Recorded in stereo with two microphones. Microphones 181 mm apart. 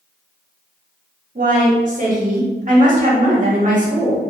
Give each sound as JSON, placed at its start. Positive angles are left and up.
{"t": 1.4, "sound": "a woman speaking", "side_deg": -45, "distance_m": 0.8}